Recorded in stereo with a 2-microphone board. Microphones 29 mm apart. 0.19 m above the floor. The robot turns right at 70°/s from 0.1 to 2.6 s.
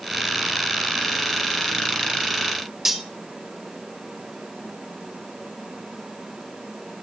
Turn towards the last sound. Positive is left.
turn(degrees=-10)  # may be behind; listen again after turning